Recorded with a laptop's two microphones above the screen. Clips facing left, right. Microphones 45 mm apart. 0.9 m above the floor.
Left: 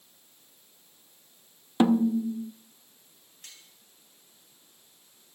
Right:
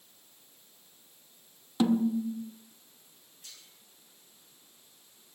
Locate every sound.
1.8 s a snare drum: 35° left (ahead or behind), 0.6 m
3.4 s cutlery clinking: 60° left (ahead or behind), 4 m